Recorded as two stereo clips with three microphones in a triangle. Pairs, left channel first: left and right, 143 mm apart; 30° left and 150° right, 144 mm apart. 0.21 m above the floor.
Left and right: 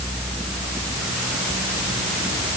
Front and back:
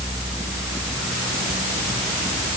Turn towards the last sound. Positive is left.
No sound to turn to.